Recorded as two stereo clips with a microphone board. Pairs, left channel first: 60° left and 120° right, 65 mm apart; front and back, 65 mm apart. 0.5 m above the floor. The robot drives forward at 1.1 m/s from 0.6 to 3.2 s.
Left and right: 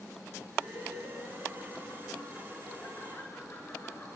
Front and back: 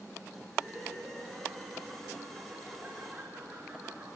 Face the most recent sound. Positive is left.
turn(degrees=120)